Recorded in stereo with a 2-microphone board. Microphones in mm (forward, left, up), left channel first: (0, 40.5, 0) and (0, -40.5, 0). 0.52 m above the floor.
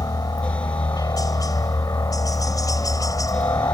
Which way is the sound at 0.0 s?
50° left (ahead or behind).